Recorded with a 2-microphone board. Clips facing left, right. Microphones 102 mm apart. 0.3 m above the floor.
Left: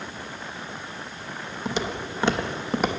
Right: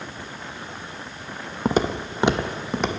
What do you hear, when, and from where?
1.6 s footsteps: 50° right (ahead or behind), 0.7 m; by 3.0 s 10° left (ahead or behind), 0.8 m